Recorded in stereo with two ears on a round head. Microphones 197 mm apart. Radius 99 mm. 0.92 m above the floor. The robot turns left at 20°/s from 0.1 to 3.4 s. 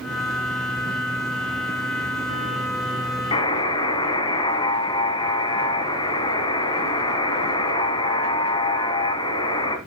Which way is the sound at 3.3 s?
20° left (ahead or behind).